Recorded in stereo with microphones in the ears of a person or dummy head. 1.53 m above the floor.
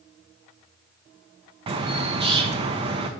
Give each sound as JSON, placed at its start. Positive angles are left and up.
{"t": 1.7, "sound": "a bird", "side_deg": -30, "distance_m": 0.9}